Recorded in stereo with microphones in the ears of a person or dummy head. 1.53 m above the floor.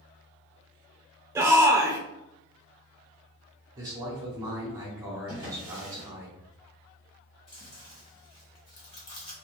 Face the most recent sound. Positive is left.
turn(degrees=30)  # may be behind; listen again after turning